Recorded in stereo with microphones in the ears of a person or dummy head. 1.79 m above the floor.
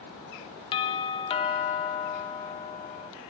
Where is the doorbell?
25° left (ahead or behind), 0.5 m.